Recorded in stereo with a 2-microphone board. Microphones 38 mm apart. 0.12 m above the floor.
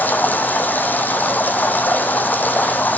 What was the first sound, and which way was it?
Running water, 50° left (ahead or behind).